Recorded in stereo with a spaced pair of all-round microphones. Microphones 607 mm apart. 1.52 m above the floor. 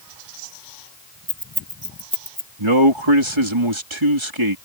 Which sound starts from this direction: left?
Keys jangling, at 1.3 s.